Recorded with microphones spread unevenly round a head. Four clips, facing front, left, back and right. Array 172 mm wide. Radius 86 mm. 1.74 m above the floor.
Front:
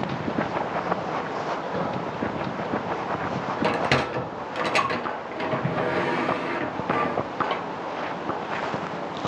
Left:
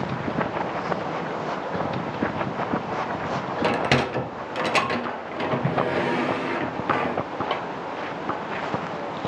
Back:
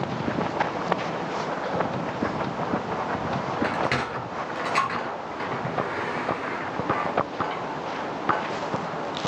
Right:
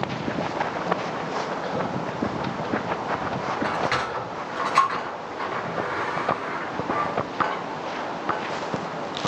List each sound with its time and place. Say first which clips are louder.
3.6 s a sliding door: left 6 dB, front 5 dB; 60° left, 1.0 m